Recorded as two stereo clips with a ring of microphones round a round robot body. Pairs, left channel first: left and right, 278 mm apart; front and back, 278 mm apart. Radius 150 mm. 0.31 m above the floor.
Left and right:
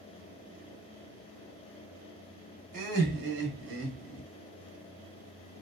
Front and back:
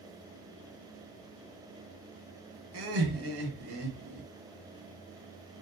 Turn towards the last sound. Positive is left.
turn(degrees=-135)